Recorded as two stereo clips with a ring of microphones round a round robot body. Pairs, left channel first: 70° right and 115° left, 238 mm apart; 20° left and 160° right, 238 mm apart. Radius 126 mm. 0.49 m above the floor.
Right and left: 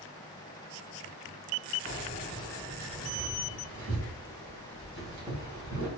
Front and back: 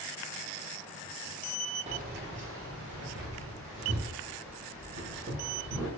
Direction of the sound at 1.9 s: 105° right.